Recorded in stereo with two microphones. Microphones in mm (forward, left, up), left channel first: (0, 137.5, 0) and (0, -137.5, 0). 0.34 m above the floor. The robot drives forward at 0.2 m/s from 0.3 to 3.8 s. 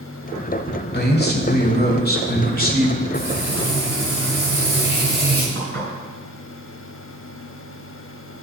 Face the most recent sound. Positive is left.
turn(degrees=-45)  # may be behind; listen again after turning